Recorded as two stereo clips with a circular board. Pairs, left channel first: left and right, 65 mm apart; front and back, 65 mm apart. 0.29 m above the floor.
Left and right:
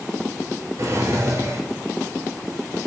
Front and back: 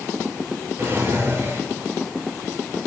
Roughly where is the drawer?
Behind right.